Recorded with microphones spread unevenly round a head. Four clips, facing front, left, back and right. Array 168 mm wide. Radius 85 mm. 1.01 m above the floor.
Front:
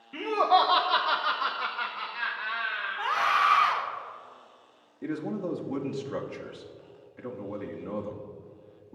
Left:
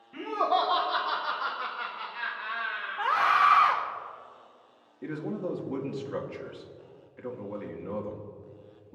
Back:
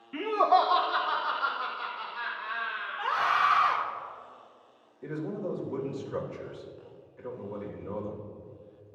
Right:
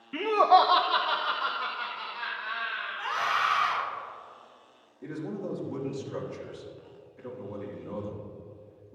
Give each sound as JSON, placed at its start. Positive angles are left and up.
{"t": 0.1, "sound": "laughter", "azimuth_deg": -90, "distance_m": 0.8}
{"t": 3.0, "sound": "a scream", "azimuth_deg": 65, "distance_m": 2.0}
{"t": 5.0, "sound": "a man speaking", "azimuth_deg": 25, "distance_m": 1.6}